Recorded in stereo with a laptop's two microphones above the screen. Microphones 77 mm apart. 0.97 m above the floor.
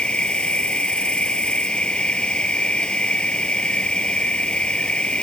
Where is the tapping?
I don't hear tapping.